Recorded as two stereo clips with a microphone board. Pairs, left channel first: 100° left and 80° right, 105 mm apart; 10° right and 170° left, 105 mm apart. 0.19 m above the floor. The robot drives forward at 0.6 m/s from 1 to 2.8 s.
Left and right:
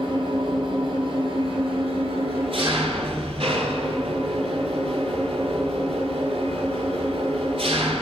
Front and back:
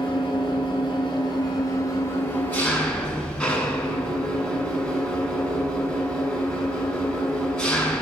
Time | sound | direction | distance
0.0 | an engine running | 50° right | 1.7 m